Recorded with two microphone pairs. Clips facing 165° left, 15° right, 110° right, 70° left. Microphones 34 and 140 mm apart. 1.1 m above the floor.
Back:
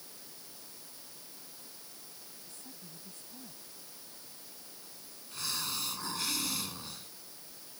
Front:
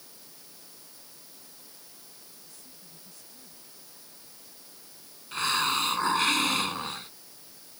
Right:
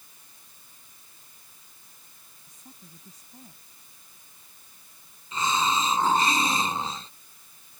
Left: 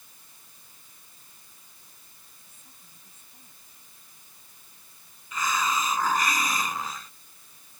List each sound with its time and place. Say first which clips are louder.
2.5 s a woman speaking: back 2 dB, right 11 dB; 155° right
5.3 s a hiss: front 12 dB, right 2 dB; 50° right